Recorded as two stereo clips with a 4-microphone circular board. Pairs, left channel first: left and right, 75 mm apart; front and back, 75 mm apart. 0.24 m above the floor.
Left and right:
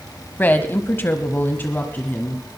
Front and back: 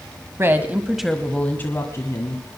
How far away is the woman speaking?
About 1.3 m.